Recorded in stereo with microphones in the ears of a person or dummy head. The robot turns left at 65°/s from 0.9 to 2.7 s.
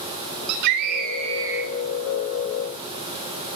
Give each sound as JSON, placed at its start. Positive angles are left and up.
{"t": 0.5, "sound": "a scream", "azimuth_deg": -125, "distance_m": 4.0}